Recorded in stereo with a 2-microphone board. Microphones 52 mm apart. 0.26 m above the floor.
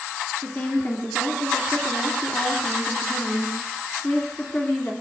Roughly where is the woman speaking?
Left.